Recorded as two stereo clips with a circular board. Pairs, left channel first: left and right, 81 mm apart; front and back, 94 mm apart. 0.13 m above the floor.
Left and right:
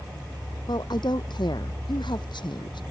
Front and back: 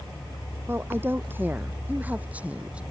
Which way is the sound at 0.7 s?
115° left.